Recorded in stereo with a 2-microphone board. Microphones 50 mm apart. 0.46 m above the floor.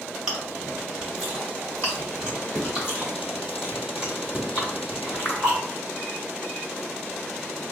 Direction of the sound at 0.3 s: 10° right (ahead or behind).